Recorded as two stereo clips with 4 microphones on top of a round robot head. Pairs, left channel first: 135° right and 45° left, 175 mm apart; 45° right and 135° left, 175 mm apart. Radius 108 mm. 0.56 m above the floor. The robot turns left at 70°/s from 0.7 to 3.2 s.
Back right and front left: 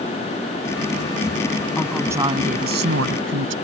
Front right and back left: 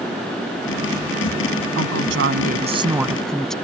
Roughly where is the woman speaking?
Behind left.